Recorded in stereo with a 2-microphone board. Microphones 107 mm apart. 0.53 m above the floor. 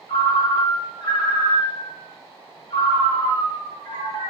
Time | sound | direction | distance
0.1 | a ringtone | 45° left (ahead or behind) | 0.9 m